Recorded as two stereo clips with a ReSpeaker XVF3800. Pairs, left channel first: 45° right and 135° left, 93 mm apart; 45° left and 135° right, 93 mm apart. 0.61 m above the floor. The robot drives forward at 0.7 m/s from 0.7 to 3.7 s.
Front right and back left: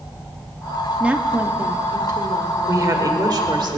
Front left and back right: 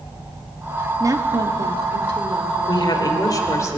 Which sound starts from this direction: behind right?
A woman speaking, at 1.0 s.